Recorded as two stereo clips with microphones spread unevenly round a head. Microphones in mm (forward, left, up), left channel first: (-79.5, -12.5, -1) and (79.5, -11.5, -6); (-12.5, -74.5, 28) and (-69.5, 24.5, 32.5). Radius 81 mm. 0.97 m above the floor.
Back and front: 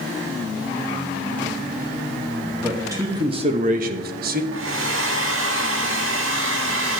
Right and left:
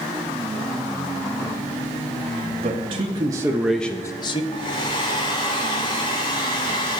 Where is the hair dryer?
Straight ahead, 1.7 m.